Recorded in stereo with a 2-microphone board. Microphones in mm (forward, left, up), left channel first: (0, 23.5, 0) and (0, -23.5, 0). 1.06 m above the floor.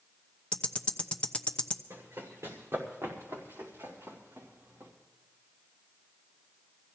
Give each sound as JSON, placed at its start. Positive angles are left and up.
{"t": 0.5, "sound": "ticking", "side_deg": 20, "distance_m": 0.7}
{"t": 1.9, "sound": "running footsteps", "side_deg": -75, "distance_m": 3.5}